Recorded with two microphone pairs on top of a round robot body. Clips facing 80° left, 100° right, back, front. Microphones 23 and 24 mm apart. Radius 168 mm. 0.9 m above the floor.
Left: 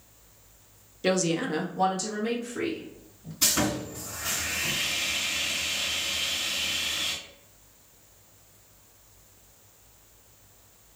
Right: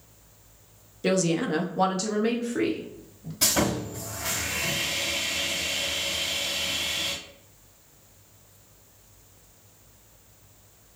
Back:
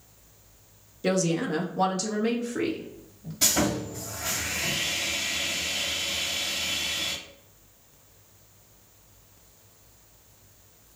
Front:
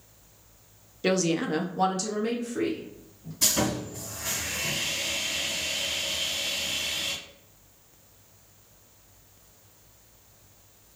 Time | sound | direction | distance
1.0 | a woman speaking | 25° left | 0.8 m
3.4 | sawing | 130° right | 1.4 m